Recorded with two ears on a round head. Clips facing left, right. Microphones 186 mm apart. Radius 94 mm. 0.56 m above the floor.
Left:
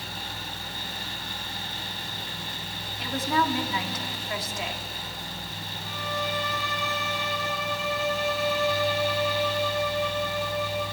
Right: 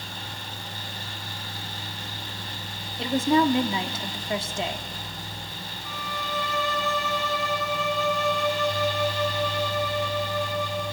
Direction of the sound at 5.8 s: 60° right (ahead or behind).